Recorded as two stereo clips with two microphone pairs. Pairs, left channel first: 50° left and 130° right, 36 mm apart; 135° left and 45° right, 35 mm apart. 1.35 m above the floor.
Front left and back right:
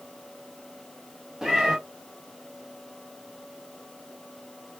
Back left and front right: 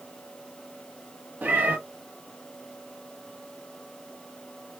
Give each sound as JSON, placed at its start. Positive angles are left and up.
{"t": 1.4, "sound": "a cat meowing", "azimuth_deg": -60, "distance_m": 1.1}